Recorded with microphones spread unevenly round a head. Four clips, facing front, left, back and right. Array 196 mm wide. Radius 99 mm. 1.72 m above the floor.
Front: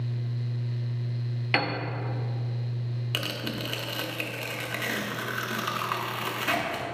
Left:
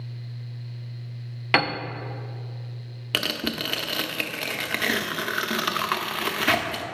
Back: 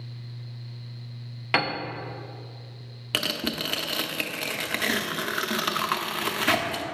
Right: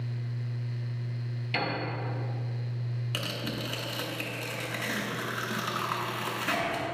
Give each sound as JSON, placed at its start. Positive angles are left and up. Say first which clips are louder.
{"t": 1.5, "sound": "a piano", "louder": "left 8 dB, back 2 dB", "azimuth_deg": 85, "distance_m": 0.6}
{"t": 3.1, "sound": "tearing paper", "louder": "left 8 dB, back 5 dB", "azimuth_deg": 115, "distance_m": 0.7}